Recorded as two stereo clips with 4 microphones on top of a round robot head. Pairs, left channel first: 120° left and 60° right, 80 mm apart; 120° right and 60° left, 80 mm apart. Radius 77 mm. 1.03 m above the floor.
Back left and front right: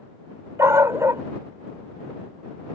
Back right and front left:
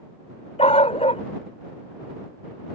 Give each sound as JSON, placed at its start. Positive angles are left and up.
{"t": 0.6, "sound": "a dog barking", "azimuth_deg": -115}